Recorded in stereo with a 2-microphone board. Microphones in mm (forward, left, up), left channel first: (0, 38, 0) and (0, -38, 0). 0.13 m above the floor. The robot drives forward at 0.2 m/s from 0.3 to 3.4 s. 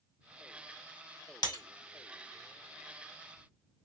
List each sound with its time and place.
1.4 s breaking glass: 65° left (ahead or behind), 1.6 m